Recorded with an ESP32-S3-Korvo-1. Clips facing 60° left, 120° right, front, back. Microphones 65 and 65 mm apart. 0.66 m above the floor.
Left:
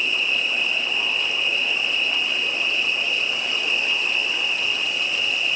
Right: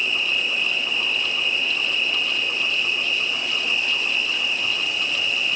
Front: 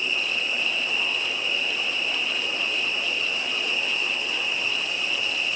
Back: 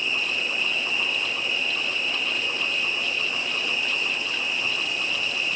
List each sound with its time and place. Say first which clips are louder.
0.0 s an insect: even, even; 135° left, 4.5 m